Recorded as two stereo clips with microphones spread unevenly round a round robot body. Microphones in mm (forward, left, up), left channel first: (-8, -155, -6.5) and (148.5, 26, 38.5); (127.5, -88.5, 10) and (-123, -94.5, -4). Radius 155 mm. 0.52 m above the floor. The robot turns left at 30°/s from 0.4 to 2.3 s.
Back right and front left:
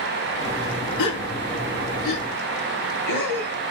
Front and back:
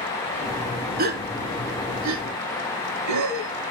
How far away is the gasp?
About 1.2 m.